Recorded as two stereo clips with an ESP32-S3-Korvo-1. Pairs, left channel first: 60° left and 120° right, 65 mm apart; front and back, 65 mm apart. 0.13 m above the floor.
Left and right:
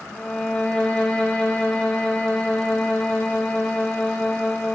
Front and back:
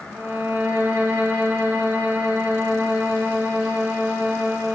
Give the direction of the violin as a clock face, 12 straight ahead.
8 o'clock.